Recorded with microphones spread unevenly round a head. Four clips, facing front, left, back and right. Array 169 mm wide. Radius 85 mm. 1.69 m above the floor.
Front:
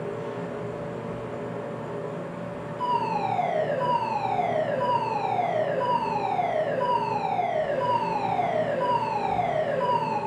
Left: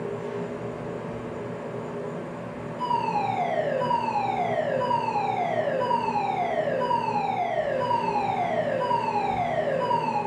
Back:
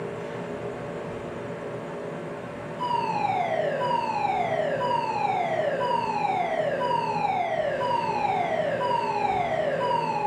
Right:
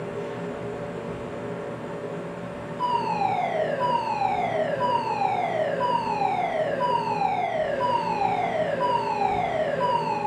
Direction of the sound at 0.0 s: 15° right.